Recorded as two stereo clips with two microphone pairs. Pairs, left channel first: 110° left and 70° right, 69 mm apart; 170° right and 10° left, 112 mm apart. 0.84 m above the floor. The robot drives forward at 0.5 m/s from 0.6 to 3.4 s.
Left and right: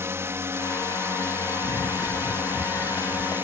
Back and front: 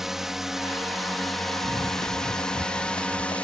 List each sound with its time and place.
0.0 s a drone: 75° right; by 3.4 s 100° right
1.6 s running footsteps: 135° left; by 3.4 s 140° left